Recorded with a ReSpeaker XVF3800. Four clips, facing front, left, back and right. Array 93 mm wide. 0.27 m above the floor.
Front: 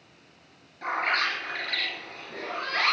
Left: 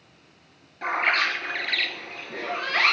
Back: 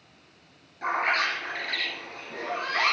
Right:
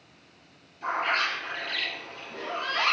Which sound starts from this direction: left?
A bird, at 0.8 s.